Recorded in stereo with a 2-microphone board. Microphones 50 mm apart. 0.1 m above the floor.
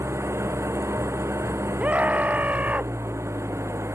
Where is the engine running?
65° right (ahead or behind).